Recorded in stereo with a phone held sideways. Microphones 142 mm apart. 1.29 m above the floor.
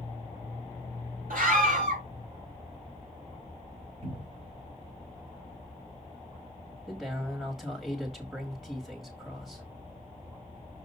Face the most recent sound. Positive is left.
turn(degrees=-5)  # may be behind; listen again after turning